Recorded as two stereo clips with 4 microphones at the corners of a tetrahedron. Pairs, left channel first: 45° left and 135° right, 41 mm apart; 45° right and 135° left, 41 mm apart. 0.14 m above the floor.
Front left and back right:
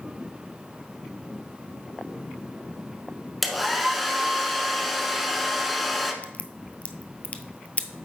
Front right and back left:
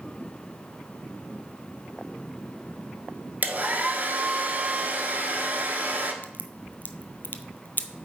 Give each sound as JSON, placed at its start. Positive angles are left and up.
{"t": 3.4, "sound": "a hair dryer", "azimuth_deg": 130, "distance_m": 0.9}
{"t": 6.2, "sound": "a crack", "azimuth_deg": -10, "distance_m": 0.6}